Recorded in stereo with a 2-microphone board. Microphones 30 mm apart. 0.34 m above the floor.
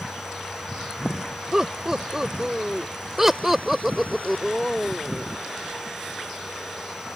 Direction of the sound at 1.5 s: 20° right (ahead or behind).